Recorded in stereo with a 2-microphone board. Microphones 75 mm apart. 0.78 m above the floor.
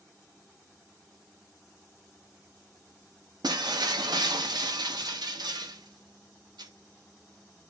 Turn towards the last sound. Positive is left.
turn(degrees=-75)  # may be behind; listen again after turning